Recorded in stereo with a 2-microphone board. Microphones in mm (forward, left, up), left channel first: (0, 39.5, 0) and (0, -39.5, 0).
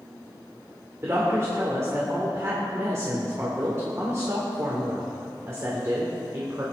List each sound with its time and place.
1.0 s a woman speaking: 35° right (ahead or behind), 2.5 m